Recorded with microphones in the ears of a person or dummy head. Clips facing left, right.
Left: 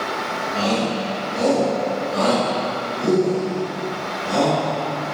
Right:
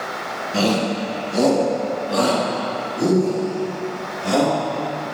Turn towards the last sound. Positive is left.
turn(degrees=-85)